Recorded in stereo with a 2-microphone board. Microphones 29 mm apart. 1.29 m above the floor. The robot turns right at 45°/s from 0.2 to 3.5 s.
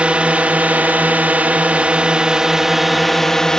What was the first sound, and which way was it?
A drone, 125° right.